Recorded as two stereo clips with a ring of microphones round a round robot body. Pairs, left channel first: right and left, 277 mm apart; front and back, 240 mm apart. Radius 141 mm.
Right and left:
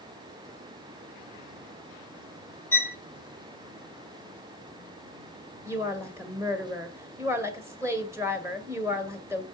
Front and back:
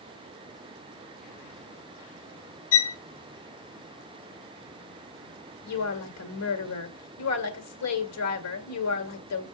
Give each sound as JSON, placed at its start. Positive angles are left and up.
{"t": 2.7, "sound": "a violin", "azimuth_deg": -10, "distance_m": 0.7}
{"t": 5.7, "sound": "a woman speaking", "azimuth_deg": 10, "distance_m": 1.9}